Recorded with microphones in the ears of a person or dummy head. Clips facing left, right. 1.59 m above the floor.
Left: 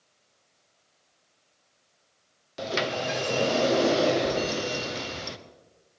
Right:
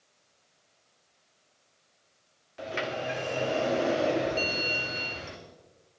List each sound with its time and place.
2.6 s a sliding door: 55° left (ahead or behind), 0.9 m
4.4 s a bell: 10° right (ahead or behind), 0.8 m